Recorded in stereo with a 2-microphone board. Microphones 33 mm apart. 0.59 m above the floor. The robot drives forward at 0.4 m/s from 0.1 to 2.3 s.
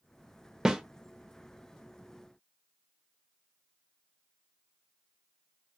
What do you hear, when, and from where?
0.7 s a snare drum: 15° right (ahead or behind), 0.5 m